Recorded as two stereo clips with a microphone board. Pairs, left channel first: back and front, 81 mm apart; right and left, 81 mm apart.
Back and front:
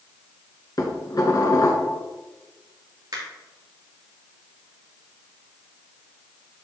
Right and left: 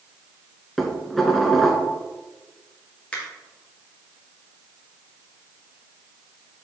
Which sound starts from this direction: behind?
Dishes clattering, at 0.8 s.